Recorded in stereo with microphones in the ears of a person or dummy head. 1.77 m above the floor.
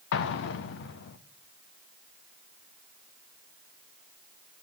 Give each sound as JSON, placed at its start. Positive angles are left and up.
{"t": 0.1, "sound": "an explosion", "side_deg": 60, "distance_m": 1.0}